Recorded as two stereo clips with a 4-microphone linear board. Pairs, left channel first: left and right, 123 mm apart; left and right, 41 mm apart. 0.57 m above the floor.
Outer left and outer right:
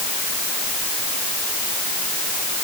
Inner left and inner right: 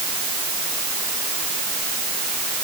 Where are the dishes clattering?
I don't hear dishes clattering.